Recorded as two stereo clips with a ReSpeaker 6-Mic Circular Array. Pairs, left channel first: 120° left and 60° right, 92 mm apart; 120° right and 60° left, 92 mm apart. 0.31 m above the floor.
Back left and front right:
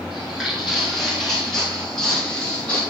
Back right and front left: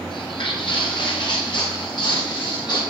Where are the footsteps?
150° right, 9.5 m; by 2.8 s 165° right, 9.5 m.